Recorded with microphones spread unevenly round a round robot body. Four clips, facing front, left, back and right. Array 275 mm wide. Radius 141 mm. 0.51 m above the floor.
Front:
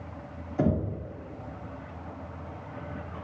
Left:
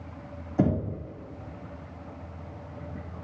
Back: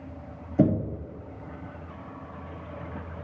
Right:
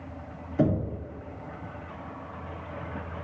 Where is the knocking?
150° left, 2.5 m.